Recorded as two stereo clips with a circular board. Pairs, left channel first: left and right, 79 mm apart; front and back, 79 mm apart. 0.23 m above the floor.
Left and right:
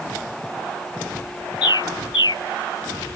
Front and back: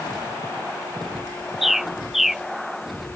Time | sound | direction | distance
1.6 | a bird | 95° left | ?